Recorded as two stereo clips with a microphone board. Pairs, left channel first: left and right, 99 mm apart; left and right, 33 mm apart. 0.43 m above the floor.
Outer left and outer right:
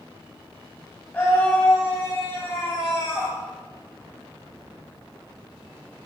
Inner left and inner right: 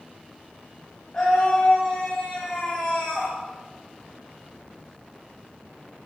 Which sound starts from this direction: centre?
A scream, at 1.1 s.